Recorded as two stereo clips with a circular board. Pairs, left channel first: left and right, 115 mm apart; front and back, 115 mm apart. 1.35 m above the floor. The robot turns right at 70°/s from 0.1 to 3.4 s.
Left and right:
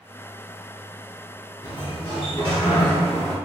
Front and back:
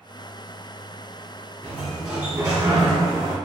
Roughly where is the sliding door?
Left.